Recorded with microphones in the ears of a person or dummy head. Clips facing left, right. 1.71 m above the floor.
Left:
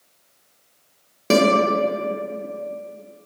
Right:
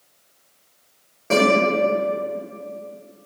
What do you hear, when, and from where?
1.3 s a guitar: 45° left (ahead or behind), 0.6 m